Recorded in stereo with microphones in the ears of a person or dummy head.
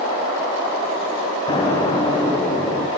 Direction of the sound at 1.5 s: 20° left (ahead or behind).